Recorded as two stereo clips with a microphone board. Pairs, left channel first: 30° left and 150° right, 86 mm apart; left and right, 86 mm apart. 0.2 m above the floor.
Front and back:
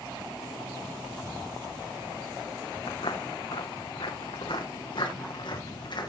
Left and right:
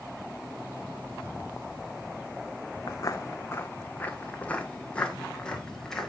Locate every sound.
2.9 s footsteps: 45° left, 0.8 m; by 6.1 s 5° left, 2 m